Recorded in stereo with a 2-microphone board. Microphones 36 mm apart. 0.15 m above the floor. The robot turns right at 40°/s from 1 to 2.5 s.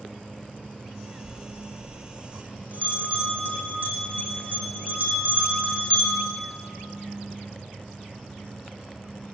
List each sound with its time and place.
1.2 s a bell: 75° right (ahead or behind), 1.9 m; by 6.4 s 55° right (ahead or behind), 1.9 m